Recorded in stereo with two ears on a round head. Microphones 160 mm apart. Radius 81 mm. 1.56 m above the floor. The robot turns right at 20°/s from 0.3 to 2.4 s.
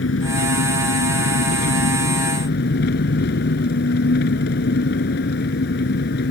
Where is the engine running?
75° left; by 6.3 s 115° left.